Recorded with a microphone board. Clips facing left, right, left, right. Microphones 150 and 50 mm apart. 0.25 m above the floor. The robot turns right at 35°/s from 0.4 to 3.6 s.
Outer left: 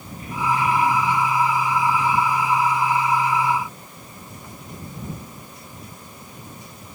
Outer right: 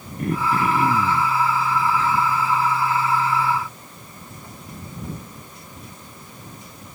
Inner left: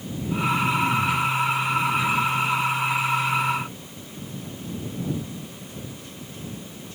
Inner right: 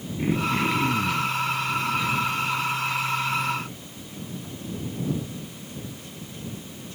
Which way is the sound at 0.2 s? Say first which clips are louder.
Outer right 1 dB, even; 60° right.